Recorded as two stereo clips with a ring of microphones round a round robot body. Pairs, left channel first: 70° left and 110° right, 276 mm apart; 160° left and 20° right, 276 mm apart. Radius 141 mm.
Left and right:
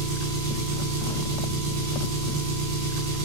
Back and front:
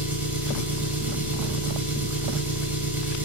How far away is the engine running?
About 2.5 m.